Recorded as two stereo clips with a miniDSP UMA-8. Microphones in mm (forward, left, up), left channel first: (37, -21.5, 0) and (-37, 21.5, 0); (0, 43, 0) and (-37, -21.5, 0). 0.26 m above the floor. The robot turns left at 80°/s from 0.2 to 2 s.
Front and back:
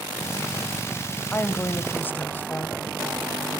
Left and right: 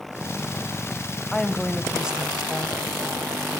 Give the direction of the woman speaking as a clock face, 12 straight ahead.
12 o'clock.